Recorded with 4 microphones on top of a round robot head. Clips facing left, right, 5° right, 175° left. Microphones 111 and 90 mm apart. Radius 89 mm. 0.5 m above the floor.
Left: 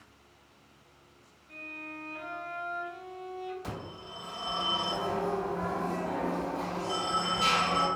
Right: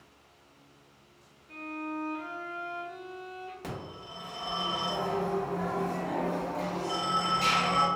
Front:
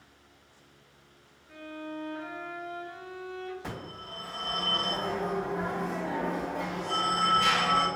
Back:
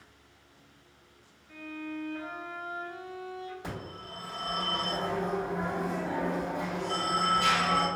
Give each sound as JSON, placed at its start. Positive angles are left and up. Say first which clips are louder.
{"t": 1.5, "sound": "a violin", "louder": "right 8 dB, even", "azimuth_deg": -70, "distance_m": 0.7}
{"t": 3.6, "sound": "a phone ringing", "louder": "even, even", "azimuth_deg": -105, "distance_m": 1.3}